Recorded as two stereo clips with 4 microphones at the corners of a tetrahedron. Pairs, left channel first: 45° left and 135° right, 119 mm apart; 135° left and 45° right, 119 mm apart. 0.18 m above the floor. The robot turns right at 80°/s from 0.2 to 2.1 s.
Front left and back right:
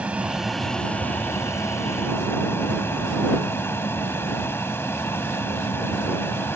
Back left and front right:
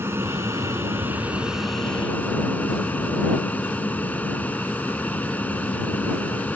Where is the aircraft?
70° right; by 6.6 s 80° left.